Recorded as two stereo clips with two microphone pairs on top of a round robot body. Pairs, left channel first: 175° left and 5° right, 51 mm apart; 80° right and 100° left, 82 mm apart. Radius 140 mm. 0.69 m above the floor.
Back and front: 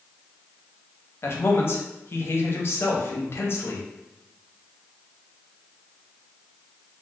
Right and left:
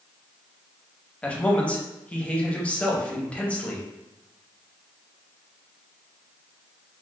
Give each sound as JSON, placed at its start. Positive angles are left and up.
{"t": 1.2, "sound": "a man speaking", "azimuth_deg": -160, "distance_m": 0.9}